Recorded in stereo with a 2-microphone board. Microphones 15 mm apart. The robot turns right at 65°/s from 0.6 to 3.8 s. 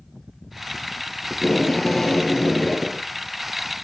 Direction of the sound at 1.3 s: 60° left.